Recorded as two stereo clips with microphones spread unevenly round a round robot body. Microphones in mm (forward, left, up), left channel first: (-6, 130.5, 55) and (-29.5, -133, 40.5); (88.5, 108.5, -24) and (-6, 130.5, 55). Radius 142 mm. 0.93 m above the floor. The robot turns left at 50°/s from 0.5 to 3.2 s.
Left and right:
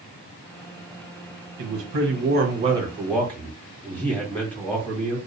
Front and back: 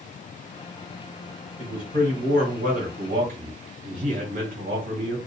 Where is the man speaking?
110° right, 1.3 m; by 5.2 s 170° left, 1.3 m.